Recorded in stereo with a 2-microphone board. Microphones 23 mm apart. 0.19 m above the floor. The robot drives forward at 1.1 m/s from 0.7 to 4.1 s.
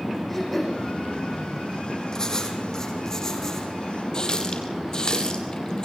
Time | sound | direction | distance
0.3 | throat clearing | 10° left (ahead or behind) | 9 m
2.1 | writing | 30° left (ahead or behind) | 4.5 m
4.1 | a running tap | 35° left (ahead or behind) | 4.5 m